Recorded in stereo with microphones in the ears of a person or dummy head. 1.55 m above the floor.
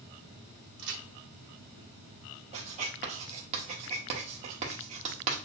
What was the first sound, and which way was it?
A crack, 65° right (ahead or behind).